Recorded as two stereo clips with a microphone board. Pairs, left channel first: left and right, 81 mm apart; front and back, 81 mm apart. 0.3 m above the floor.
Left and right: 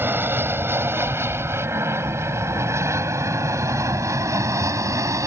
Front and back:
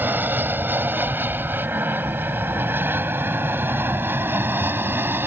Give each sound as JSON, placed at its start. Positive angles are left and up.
{"t": 0.0, "sound": "an aircraft", "azimuth_deg": -130}